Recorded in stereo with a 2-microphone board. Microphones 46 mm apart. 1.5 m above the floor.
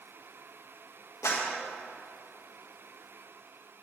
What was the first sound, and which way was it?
A clap, 85° left.